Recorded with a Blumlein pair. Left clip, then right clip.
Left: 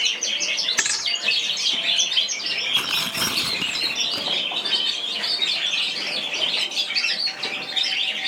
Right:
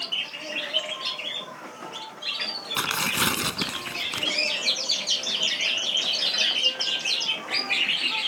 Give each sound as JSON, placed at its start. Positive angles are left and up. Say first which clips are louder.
{"t": 0.8, "sound": "a thud", "louder": "left 7 dB", "azimuth_deg": 50}
{"t": 2.8, "sound": "tearing paper", "louder": "left 2 dB", "azimuth_deg": -10}